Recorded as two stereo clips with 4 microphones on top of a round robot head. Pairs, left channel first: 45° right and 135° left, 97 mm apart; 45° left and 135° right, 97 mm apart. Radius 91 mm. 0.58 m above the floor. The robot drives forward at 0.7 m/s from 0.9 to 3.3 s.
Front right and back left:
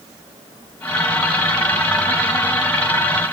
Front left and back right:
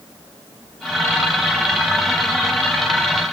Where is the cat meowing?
I don't hear a cat meowing.